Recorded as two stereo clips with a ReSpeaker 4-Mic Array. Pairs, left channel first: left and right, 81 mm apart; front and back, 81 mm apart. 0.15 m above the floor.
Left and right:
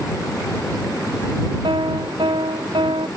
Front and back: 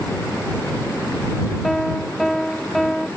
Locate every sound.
1.6 s a piano: 90° right